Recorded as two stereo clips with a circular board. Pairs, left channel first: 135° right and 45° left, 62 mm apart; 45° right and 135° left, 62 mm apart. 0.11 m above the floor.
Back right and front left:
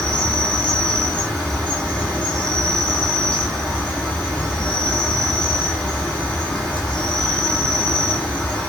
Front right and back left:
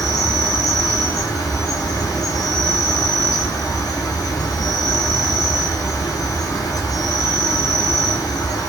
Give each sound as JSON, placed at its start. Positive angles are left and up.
{"t": 0.0, "sound": "an insect", "azimuth_deg": -45, "distance_m": 1.1}